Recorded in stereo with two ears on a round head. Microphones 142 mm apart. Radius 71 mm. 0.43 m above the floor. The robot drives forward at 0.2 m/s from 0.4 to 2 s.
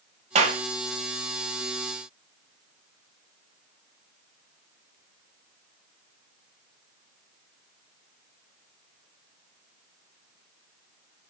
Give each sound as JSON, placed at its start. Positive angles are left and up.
{"t": 0.3, "sound": "a clap", "side_deg": -45, "distance_m": 1.6}